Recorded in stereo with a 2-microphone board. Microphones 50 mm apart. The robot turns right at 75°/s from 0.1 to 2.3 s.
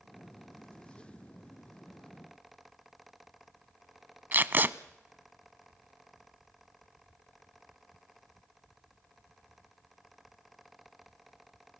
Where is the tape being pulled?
40° right (ahead or behind), 0.6 m.